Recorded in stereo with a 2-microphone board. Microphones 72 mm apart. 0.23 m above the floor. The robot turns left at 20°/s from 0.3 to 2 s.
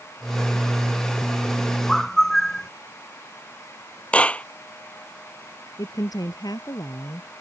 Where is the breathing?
I don't hear breathing.